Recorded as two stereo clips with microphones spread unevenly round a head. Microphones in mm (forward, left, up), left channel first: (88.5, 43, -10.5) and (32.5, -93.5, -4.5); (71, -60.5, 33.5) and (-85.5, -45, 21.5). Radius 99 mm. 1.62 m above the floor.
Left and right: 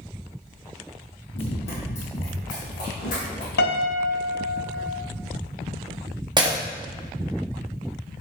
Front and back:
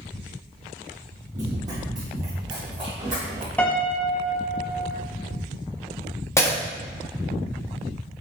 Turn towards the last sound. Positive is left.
turn(degrees=-65)